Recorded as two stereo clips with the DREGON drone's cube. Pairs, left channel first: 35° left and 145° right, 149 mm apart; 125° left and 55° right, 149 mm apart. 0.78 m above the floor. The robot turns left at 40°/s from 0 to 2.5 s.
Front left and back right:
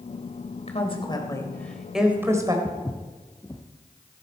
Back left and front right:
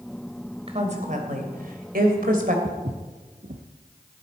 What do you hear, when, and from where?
0.7 s a woman speaking: 10° right, 3 m; by 2.5 s 80° right, 3 m
2.6 s footsteps: 40° right, 1.8 m